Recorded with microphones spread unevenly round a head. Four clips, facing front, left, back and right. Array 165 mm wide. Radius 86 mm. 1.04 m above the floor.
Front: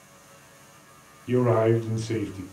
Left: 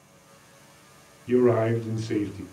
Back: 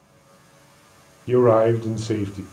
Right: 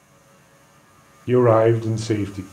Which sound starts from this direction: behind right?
A man speaking, at 1.3 s.